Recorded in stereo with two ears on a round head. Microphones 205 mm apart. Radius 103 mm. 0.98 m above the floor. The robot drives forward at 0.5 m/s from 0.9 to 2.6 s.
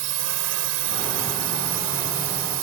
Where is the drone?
75° right (ahead or behind); by 2.6 s 80° right.